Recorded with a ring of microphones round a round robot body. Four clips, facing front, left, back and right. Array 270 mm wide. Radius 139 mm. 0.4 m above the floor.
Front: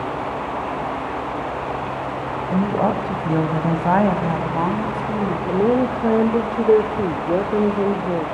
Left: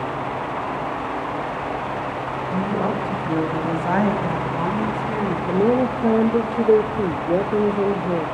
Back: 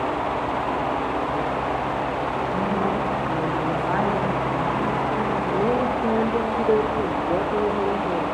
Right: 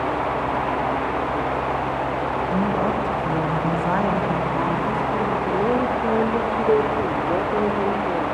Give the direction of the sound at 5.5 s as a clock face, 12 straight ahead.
11 o'clock.